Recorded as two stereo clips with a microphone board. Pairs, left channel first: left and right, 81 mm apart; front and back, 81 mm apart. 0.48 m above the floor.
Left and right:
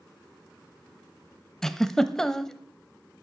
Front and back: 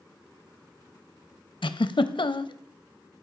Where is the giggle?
5° left, 0.6 m.